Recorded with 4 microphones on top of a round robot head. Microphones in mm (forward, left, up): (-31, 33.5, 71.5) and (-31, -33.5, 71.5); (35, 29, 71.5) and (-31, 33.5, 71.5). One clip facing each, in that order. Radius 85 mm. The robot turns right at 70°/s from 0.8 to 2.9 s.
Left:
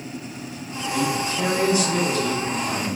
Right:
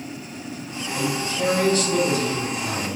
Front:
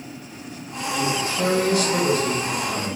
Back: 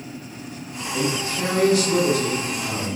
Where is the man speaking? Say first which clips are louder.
Left 2 dB, front 1 dB; 115° left, 5 m; by 2.9 s 110° right, 5 m.